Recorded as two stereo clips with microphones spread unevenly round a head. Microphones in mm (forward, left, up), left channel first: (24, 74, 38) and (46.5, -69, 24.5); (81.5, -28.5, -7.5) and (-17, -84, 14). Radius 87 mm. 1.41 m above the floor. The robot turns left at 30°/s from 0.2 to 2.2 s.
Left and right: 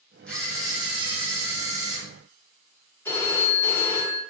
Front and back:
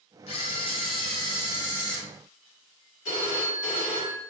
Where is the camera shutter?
25° left, 1.6 m; by 2.0 s 30° right, 1.6 m.